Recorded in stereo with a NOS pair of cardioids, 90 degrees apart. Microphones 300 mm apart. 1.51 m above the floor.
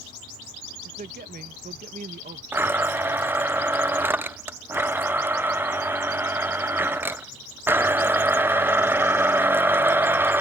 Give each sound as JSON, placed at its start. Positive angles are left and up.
{"t": 0.8, "sound": "a man speaking", "azimuth_deg": -30}
{"t": 2.5, "sound": "a blender", "azimuth_deg": -5}